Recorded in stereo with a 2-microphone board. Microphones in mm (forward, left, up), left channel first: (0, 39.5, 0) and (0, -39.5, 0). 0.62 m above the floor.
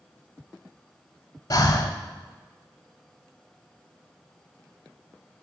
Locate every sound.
1.5 s breathing: 55° left (ahead or behind), 0.6 m